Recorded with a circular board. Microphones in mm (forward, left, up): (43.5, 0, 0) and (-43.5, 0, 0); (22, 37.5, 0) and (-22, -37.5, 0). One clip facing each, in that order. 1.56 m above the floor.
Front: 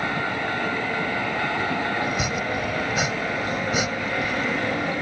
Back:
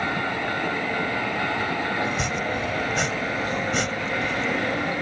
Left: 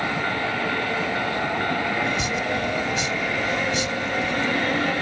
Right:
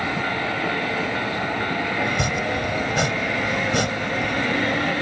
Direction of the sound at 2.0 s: 85° right.